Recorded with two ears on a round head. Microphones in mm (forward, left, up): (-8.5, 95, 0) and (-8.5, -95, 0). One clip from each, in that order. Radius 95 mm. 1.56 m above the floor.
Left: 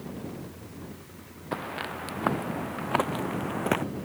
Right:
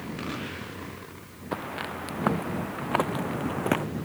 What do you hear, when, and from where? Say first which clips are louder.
1.5 s footsteps: even; 5° left (ahead or behind); by 3.9 s 10° left (ahead or behind)